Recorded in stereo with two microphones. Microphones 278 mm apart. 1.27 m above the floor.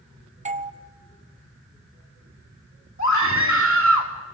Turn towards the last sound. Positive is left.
turn(degrees=85)